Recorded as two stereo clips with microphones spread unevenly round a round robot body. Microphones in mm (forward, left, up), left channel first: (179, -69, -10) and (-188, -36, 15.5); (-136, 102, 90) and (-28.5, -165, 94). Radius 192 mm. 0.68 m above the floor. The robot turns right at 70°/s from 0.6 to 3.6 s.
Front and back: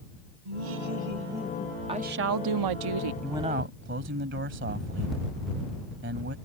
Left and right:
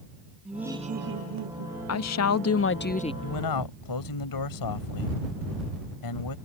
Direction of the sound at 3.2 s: 85° left.